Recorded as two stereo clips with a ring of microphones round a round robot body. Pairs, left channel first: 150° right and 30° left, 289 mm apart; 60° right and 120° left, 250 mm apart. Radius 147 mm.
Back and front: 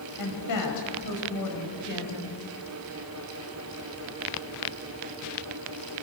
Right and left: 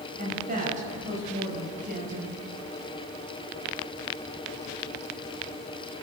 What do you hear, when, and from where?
0.2 s a woman speaking: 175° right, 5 m